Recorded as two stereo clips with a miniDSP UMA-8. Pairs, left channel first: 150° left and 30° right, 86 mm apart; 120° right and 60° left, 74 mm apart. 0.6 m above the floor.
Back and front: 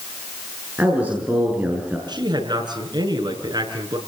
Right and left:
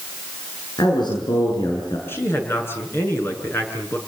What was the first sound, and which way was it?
A man speaking, 105° right.